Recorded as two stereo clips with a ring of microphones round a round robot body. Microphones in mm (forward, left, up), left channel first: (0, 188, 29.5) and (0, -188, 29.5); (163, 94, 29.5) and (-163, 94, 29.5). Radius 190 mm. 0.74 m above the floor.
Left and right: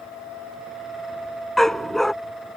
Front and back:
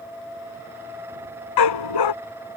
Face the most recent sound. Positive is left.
turn(degrees=0)